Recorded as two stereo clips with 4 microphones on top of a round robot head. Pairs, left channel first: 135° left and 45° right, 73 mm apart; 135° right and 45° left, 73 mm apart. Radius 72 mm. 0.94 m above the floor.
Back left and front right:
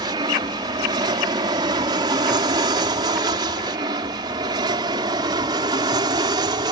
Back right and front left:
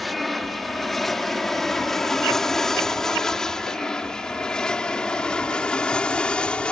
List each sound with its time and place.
0.0 s an aircraft: 50° right; by 6.7 s 60° right